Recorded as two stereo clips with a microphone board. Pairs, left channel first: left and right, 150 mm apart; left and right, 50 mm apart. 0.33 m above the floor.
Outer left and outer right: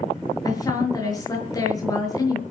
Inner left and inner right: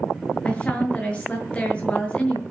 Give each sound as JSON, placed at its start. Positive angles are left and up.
{"t": 0.5, "sound": "a woman speaking", "side_deg": 25, "distance_m": 6.0}